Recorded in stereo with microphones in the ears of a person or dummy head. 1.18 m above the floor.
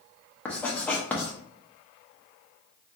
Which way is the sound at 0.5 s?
10° left (ahead or behind).